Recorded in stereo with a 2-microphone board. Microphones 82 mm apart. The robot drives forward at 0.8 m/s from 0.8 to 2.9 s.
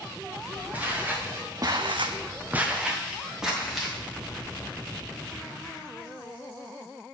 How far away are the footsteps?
About 2.0 m.